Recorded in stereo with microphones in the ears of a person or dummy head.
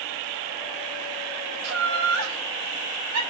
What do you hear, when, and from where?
1.6 s laughter: 80° right, 2.5 m